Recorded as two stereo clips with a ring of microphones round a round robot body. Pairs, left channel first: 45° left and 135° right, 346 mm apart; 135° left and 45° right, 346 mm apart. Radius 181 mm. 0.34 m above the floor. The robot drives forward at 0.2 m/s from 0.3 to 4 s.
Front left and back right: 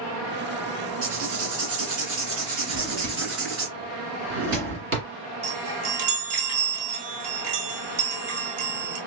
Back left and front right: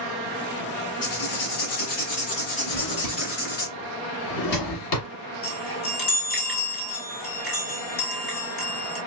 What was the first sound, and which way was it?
Writing, 170° left.